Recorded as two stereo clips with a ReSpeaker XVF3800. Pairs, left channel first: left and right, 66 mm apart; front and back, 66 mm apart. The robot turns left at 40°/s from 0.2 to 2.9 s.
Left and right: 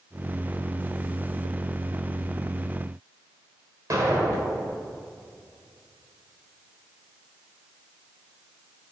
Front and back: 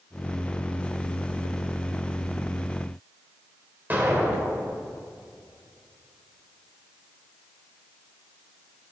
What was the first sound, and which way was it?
An explosion, 120° right.